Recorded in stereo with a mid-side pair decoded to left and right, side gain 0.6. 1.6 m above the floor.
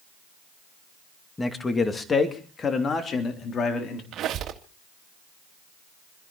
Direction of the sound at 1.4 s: 15° left.